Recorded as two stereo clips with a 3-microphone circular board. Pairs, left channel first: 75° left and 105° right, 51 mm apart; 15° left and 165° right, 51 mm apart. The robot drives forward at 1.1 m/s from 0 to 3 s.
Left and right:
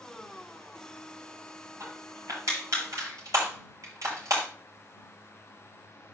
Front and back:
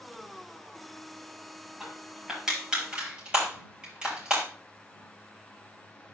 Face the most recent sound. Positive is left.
turn(degrees=-95)